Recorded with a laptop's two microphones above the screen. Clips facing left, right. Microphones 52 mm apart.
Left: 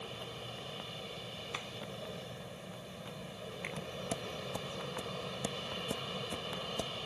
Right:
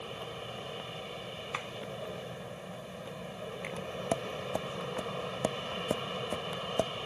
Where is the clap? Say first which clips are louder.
Right 5 dB; 25° right (ahead or behind).